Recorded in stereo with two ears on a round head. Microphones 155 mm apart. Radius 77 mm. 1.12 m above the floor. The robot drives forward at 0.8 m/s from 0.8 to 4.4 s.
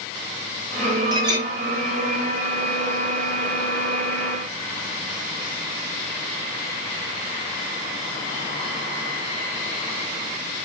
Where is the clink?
25° right (ahead or behind), 3.5 m.